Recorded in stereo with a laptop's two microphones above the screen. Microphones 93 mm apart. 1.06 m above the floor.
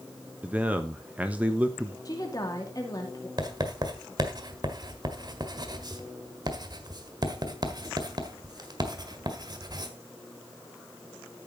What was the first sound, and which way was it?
A man speaking, 15° right (ahead or behind).